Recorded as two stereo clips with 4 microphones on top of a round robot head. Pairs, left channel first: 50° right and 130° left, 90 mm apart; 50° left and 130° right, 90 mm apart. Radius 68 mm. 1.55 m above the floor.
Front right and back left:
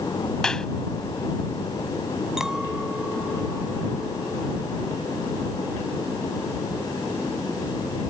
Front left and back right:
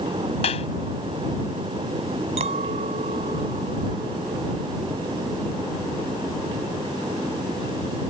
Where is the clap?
35° left.